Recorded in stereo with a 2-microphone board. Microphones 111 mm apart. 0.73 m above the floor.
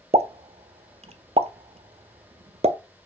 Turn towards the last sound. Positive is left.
turn(degrees=-65)  # may be behind; listen again after turning